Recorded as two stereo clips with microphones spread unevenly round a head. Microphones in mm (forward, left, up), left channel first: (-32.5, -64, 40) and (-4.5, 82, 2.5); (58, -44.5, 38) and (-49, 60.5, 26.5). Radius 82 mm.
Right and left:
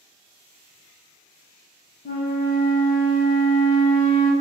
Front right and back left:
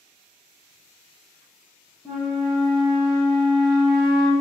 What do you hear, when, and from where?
2.0 s a flute: 140° right, 0.7 m